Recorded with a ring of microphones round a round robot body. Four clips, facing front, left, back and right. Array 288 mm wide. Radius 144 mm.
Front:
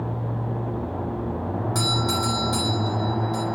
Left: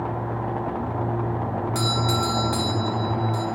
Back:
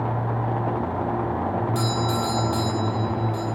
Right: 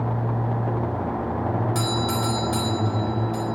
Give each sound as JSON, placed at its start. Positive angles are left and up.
{"t": 1.8, "sound": "a doorbell", "azimuth_deg": 20, "distance_m": 3.5}